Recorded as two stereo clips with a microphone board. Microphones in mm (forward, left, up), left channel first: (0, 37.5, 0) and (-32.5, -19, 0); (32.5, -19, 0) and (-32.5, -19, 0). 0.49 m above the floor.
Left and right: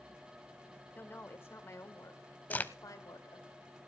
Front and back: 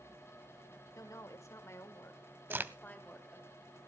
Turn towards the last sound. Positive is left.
turn(degrees=120)